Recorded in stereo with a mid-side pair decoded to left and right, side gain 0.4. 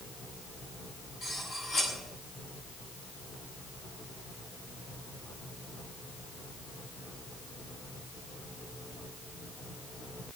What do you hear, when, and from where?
1.2 s cutlery clinking: 40° left, 7 m